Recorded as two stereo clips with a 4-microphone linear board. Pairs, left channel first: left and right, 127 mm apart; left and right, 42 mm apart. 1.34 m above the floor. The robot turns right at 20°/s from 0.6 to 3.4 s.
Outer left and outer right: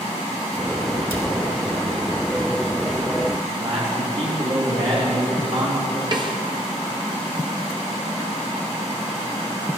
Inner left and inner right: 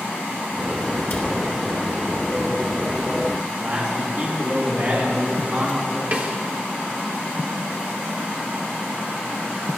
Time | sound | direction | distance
1.1 | a cupboard door | 50° left (ahead or behind) | 2.5 m
3.4 | a man speaking | 55° right (ahead or behind) | 3 m
6.1 | a snare drum | 35° right (ahead or behind) | 1.0 m